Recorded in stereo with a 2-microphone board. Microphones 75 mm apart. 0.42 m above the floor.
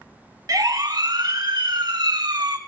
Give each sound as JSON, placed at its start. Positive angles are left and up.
{"t": 0.5, "sound": "a siren", "side_deg": -60, "distance_m": 3.5}